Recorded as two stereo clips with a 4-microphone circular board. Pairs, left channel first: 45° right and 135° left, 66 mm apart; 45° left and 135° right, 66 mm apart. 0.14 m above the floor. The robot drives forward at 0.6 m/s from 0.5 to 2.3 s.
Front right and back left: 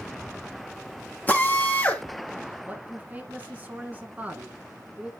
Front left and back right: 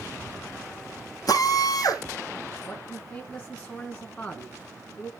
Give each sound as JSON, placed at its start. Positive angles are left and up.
{"t": 1.3, "sound": "a drill", "azimuth_deg": 20, "distance_m": 2.0}
{"t": 2.7, "sound": "a man speaking", "azimuth_deg": 95, "distance_m": 1.3}